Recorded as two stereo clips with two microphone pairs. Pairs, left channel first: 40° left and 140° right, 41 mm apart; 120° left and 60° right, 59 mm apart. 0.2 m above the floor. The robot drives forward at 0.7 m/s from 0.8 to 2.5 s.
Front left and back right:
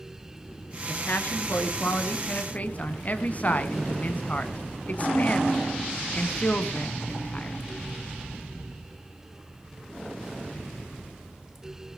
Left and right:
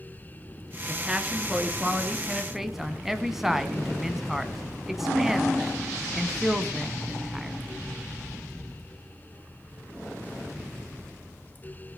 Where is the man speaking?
10° left, 2.5 m; by 7.6 s 20° left, 1.6 m.